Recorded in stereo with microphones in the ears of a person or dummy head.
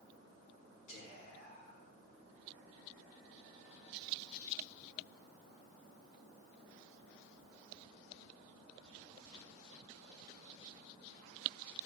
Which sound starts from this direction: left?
Whispering, at 0.9 s.